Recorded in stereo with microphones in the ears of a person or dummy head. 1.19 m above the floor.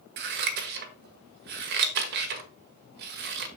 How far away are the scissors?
About 1.5 m.